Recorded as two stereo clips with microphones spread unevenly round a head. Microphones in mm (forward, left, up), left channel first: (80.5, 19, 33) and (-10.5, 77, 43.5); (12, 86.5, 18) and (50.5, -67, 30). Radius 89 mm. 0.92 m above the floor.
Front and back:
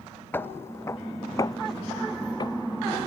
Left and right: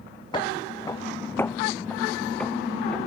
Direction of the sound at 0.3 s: 40° left.